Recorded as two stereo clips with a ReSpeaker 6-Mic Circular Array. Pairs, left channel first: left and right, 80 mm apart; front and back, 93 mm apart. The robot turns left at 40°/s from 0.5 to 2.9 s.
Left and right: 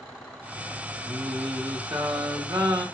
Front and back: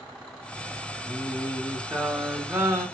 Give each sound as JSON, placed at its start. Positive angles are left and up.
{"t": 1.1, "sound": "singing", "azimuth_deg": -50, "distance_m": 0.8}